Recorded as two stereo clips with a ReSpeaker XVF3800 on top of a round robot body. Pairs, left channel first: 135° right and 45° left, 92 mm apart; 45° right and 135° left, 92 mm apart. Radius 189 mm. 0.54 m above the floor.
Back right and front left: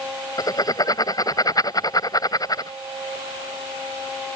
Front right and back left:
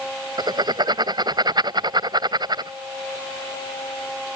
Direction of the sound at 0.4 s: 175° left.